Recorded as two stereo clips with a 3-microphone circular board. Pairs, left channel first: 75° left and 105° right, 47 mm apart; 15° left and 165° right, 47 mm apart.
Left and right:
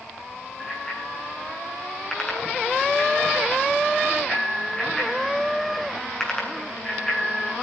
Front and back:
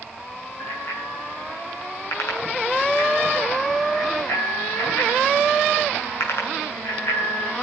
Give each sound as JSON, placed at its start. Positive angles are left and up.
{"t": 0.6, "sound": "a bicycle bell", "azimuth_deg": 0, "distance_m": 8.0}